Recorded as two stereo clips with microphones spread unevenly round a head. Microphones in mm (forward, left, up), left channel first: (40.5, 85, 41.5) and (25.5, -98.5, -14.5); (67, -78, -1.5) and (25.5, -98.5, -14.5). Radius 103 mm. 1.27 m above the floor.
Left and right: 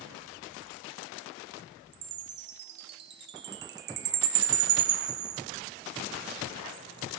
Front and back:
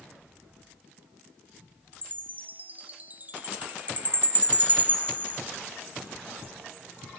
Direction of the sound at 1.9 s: 100° right.